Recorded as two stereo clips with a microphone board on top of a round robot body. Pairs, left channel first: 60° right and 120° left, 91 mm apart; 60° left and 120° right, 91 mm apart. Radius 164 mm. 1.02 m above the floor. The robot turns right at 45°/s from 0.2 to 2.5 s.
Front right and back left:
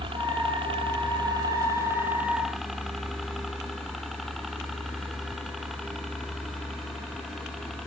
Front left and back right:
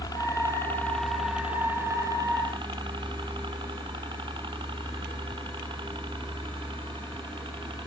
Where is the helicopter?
105° left; by 7.9 s 150° right.